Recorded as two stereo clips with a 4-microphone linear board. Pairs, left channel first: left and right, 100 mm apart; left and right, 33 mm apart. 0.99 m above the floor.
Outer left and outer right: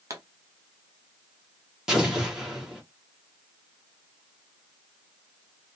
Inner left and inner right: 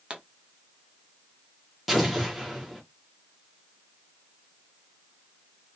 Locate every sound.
0.1 s a pop: 35° right (ahead or behind), 0.6 m
1.9 s an explosion: 5° right (ahead or behind), 0.9 m